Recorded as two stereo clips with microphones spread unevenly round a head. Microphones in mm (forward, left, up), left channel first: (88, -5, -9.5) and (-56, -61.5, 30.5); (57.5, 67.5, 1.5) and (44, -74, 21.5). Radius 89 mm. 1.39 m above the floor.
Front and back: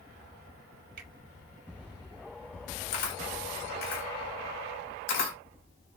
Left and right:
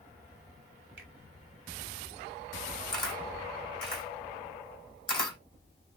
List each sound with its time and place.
1.0 s a finger snap: 140° right, 1.5 m
2.9 s a camera shutter: 25° left, 3 m